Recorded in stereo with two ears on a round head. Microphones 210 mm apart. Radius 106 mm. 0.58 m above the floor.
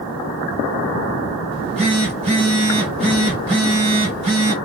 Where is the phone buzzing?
25° right (ahead or behind), 1.2 m.